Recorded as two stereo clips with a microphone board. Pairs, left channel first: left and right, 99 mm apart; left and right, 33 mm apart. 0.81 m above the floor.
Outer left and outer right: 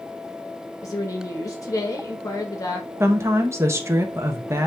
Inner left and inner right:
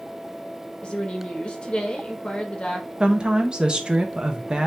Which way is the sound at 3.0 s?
25° right (ahead or behind).